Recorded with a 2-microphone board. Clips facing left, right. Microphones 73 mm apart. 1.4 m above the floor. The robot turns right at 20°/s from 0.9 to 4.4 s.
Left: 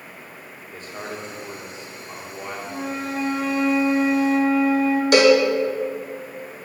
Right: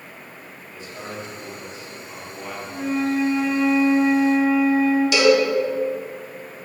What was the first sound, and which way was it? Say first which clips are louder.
A man speaking: left 1 dB; 135° left.